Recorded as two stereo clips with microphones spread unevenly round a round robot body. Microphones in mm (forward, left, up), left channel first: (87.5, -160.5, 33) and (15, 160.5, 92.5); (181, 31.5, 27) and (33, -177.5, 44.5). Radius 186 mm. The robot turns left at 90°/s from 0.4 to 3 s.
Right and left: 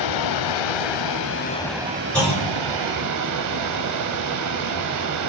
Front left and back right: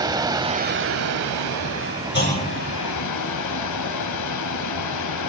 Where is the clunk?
10° left, 4 m; by 2.5 s 20° right, 4 m.